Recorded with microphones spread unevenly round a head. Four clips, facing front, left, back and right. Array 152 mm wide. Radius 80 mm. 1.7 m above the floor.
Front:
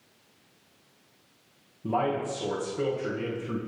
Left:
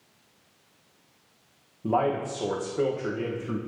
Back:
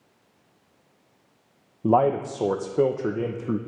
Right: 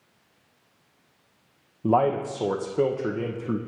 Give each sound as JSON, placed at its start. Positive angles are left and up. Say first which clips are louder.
{"t": 1.8, "sound": "a man speaking", "louder": "right 3 dB, back 7 dB", "azimuth_deg": -165, "distance_m": 1.2}